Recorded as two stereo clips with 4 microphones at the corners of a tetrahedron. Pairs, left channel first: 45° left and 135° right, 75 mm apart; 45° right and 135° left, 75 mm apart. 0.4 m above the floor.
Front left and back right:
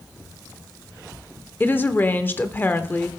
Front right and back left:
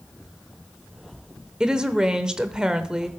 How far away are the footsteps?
No footsteps in this recording.